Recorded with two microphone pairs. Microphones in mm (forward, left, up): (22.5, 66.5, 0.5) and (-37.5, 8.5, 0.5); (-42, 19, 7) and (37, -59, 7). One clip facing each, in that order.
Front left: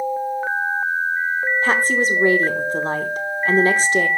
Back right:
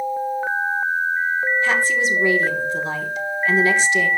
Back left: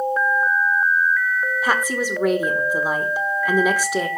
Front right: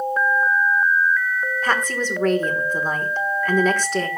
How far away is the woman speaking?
About 1.0 m.